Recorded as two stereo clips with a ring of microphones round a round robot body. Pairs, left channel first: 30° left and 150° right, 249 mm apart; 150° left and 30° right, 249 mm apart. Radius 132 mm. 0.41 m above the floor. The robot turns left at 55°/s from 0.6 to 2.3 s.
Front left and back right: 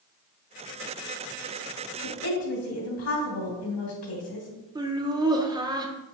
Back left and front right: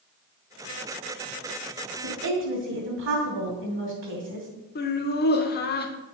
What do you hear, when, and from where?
2.0 s a woman speaking: 20° left, 3 m; by 4.5 s 5° left, 3 m
4.8 s laughter: 145° left, 0.9 m